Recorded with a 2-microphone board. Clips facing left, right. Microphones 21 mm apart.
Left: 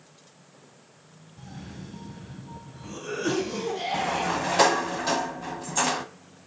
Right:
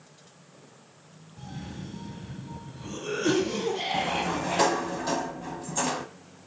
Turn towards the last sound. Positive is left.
turn(degrees=25)  # may be behind; listen again after turning